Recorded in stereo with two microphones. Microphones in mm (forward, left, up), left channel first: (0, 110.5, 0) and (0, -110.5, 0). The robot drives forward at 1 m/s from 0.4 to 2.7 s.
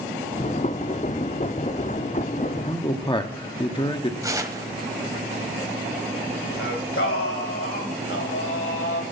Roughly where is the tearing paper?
Centre.